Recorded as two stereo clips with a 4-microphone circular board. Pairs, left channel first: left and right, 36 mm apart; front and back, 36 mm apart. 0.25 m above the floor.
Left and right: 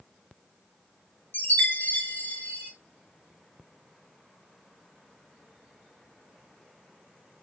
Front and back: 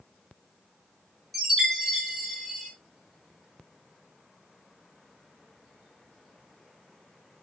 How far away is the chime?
About 4 m.